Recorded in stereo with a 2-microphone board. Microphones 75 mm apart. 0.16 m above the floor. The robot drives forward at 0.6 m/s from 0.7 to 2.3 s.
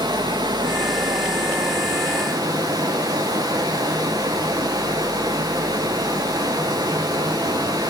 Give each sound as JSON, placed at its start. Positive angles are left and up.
{"t": 0.0, "sound": "running water", "side_deg": -75, "distance_m": 1.3}